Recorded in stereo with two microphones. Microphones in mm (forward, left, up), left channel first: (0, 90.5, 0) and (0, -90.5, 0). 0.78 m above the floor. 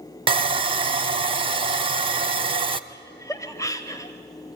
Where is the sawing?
30° right (ahead or behind), 0.7 m.